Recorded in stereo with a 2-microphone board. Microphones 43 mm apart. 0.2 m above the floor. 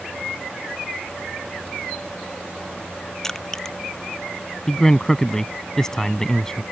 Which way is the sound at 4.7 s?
10° left (ahead or behind).